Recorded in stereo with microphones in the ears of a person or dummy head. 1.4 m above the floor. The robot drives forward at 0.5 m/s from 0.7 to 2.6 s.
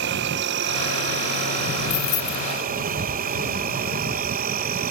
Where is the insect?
60° right (ahead or behind); by 4.9 s 45° right (ahead or behind).